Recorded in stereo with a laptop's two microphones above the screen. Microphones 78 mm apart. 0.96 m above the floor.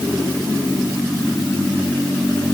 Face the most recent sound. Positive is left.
No sound to turn to.